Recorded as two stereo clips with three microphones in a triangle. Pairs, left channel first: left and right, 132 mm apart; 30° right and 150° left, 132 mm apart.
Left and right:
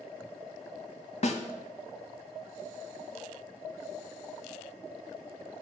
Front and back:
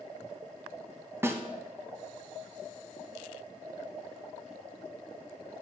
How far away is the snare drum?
About 0.6 m.